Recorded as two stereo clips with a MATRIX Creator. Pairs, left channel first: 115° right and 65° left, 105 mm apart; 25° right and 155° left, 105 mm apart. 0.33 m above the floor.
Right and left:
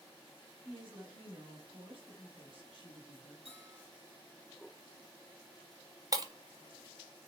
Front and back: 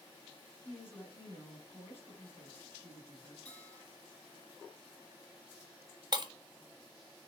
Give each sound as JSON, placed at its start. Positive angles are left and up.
{"t": 0.6, "sound": "a woman speaking", "azimuth_deg": 45, "distance_m": 2.5}
{"t": 3.5, "sound": "a bell", "azimuth_deg": 55, "distance_m": 3.0}
{"t": 6.1, "sound": "breaking glass", "azimuth_deg": 115, "distance_m": 0.5}